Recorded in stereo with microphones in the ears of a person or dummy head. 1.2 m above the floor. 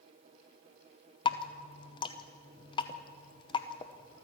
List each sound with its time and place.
1.2 s dripping: 20° left (ahead or behind), 0.9 m